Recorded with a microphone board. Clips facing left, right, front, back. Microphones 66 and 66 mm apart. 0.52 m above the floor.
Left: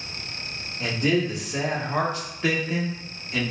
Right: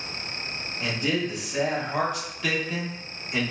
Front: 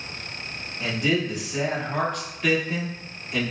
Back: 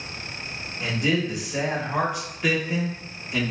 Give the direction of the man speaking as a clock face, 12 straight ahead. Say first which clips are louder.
Left 4 dB, even; 9 o'clock.